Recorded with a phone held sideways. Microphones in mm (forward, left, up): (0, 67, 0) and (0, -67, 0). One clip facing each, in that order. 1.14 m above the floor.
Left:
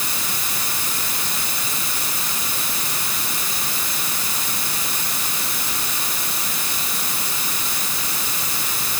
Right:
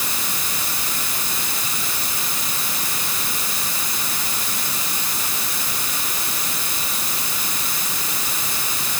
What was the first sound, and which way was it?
Only background noise.